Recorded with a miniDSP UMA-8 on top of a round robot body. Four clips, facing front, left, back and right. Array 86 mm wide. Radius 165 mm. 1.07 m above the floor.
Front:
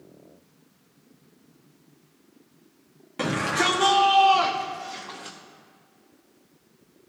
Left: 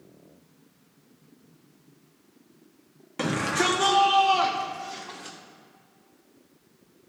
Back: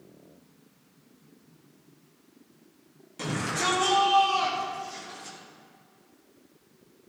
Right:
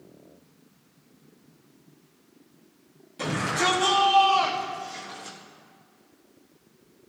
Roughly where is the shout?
Ahead left.